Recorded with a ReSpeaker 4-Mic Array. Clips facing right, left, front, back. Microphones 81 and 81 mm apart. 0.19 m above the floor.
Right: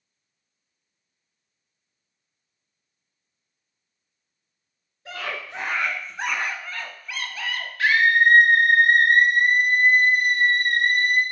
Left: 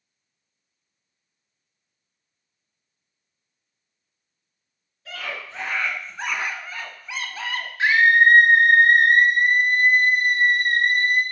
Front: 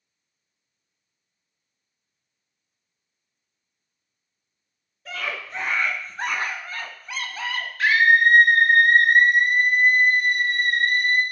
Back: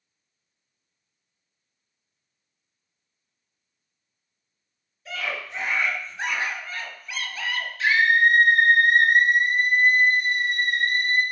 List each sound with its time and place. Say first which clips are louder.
5.0 s a scream: right 1 dB, even; 30° right, 2 m; by 7.7 s 50° left, 1.6 m
7.8 s a scream: left 2 dB, front 2 dB; 20° left, 3 m